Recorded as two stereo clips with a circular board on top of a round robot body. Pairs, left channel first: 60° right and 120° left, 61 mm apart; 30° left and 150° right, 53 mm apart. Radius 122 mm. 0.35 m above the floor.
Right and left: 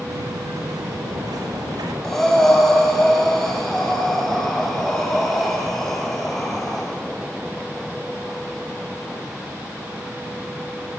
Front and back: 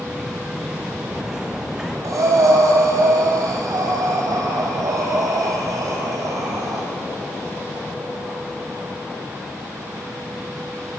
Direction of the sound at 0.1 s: 125° left.